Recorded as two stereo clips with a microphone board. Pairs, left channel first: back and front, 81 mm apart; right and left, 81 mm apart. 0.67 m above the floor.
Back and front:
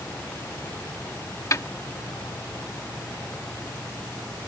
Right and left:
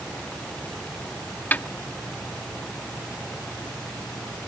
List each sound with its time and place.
1.5 s a snare drum: 150° right